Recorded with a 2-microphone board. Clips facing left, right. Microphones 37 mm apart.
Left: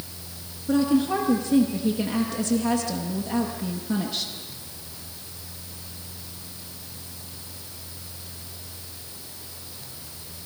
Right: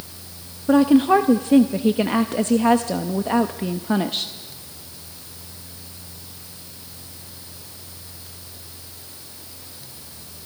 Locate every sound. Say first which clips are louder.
0.7 s a woman speaking: right 7 dB; 50° right (ahead or behind), 0.8 m